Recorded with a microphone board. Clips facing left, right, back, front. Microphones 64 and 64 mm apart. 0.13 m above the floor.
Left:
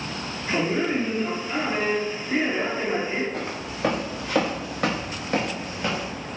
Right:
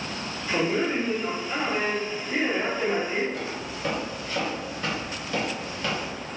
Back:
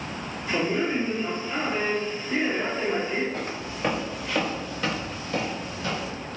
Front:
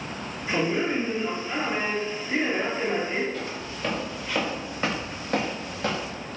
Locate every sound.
0.5 s a man speaking: 50° left, 1.8 m
3.3 s footsteps: 130° left, 0.9 m; by 6.1 s 20° left, 1.1 m